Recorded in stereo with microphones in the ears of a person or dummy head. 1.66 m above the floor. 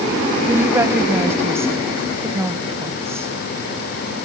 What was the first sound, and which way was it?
A woman speaking, 5° right (ahead or behind).